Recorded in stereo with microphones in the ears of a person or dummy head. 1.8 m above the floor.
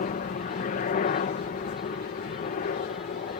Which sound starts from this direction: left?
A helicopter, at 0.0 s.